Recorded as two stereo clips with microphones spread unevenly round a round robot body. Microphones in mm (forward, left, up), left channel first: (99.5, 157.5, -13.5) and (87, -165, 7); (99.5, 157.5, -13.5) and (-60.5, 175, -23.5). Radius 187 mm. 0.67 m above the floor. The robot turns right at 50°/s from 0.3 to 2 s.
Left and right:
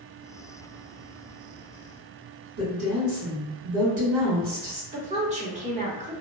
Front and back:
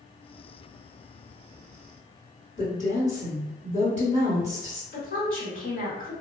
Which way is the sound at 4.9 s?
25° right.